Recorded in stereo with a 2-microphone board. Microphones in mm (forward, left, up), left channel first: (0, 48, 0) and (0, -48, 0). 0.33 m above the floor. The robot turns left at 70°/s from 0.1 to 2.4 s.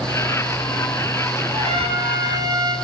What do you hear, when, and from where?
1.5 s a trumpet: 75° right, 4.5 m; by 2.8 s 135° right, 4.5 m